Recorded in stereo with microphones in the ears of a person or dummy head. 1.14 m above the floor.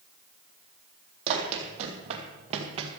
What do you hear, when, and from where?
1.3 s running footsteps: 35° right (ahead or behind), 3 m; by 2.9 s 30° right (ahead or behind), 1.9 m